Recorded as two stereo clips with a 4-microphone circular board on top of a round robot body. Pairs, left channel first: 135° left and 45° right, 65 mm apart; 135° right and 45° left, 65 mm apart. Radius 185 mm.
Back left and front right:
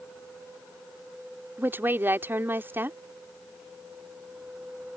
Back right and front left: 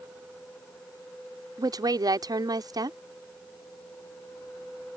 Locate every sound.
1.6 s a woman speaking: 15° left